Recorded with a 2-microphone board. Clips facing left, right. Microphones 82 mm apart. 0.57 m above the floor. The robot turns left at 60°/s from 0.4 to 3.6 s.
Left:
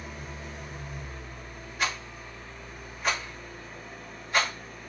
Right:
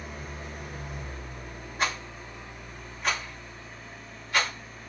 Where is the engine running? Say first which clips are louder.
Right 1 dB; 40° right, 1.0 m; by 4.9 s 125° left, 1.0 m.